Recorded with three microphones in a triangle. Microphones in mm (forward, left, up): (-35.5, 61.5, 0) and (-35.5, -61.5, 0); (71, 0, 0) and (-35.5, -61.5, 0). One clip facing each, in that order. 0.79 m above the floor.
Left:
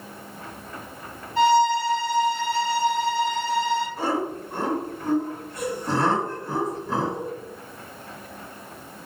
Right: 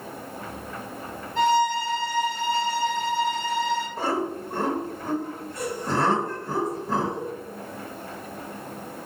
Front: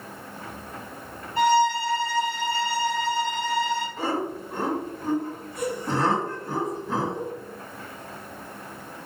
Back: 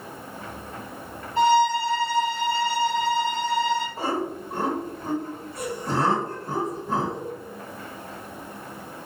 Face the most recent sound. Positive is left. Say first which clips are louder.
# left 1 dB, even
turn(degrees=-110)